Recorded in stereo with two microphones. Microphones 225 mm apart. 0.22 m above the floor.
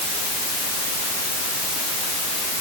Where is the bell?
No bell in this recording.